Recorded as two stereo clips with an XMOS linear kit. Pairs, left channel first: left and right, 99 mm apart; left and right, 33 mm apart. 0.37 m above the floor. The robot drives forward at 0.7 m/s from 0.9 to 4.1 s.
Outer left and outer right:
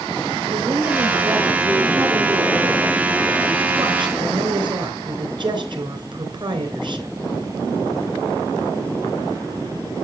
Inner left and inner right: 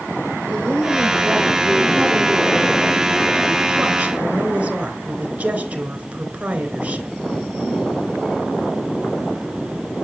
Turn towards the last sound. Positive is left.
turn(degrees=-50)  # may be behind; listen again after turning